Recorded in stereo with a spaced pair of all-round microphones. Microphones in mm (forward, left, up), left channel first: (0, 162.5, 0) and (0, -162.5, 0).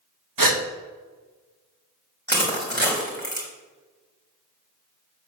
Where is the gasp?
80° right, 1.2 m.